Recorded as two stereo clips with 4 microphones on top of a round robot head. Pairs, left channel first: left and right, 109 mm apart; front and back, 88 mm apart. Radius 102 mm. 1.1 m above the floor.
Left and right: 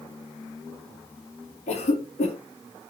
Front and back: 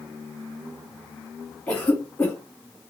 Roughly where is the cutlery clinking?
No cutlery clinking in this recording.